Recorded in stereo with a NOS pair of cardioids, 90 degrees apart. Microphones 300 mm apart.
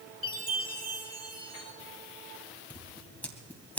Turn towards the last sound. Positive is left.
turn(degrees=5)